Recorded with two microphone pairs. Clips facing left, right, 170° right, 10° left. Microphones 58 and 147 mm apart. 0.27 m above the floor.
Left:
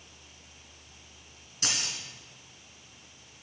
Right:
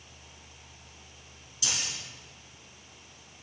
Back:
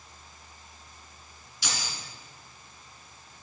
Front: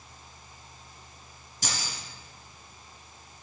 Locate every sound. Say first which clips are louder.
1.6 s keys jangling: left 1 dB, front 1 dB; 55° left, 1.9 m